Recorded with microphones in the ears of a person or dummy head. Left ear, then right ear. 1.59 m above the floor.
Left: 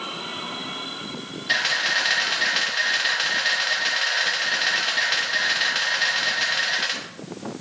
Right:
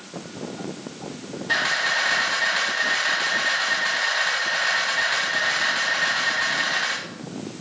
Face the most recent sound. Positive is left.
turn(degrees=25)  # may be behind; listen again after turning